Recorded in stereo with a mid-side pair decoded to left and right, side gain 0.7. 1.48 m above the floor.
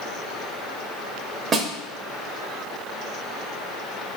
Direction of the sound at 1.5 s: 35° right.